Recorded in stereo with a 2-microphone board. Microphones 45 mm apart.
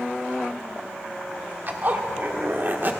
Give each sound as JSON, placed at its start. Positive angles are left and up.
{"t": 1.7, "sound": "a zipper", "side_deg": -45, "distance_m": 1.1}